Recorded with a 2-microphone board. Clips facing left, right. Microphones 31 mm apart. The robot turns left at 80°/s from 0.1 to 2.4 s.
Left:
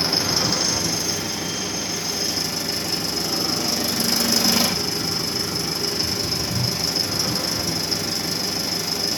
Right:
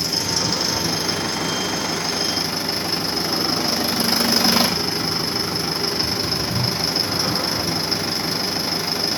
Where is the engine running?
35° left, 1.4 m; by 9.2 s 150° right, 1.4 m.